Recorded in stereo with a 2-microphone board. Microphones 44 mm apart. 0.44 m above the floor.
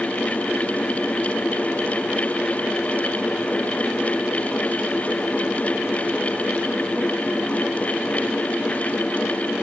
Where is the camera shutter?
No camera shutter in this recording.